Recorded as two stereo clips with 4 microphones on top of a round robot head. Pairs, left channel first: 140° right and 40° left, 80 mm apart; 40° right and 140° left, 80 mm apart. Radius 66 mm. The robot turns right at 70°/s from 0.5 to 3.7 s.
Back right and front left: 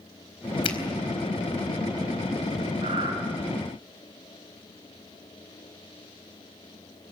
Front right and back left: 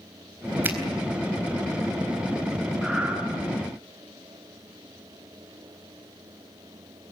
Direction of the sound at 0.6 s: 155° right.